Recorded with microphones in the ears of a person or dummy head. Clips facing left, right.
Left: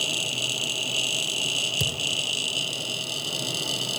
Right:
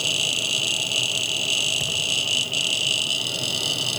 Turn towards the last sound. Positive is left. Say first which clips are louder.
# left 1 dB
turn(degrees=50)  # may be behind; listen again after turning